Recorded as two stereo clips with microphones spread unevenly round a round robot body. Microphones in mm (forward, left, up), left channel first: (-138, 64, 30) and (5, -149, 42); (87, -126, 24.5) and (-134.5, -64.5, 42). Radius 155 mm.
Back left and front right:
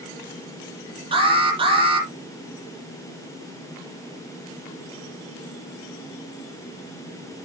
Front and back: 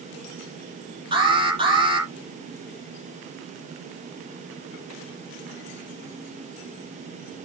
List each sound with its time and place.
1.1 s an alarm: 125° right, 8.5 m